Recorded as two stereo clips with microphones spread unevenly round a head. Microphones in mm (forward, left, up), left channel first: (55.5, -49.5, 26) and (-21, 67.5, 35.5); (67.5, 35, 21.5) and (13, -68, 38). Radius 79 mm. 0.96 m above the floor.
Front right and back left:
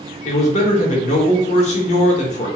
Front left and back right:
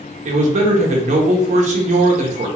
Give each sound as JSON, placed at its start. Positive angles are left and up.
{"t": 0.2, "sound": "a man speaking", "azimuth_deg": -100, "distance_m": 0.9}